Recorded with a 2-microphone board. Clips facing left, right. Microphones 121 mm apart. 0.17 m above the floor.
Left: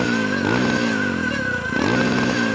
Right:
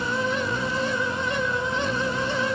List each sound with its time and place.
0.0 s a motorcycle: 75° left (ahead or behind)